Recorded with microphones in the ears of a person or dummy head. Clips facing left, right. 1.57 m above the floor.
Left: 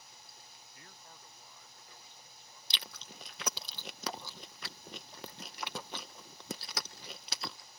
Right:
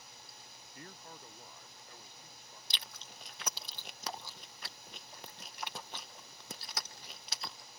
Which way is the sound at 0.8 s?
45° right (ahead or behind).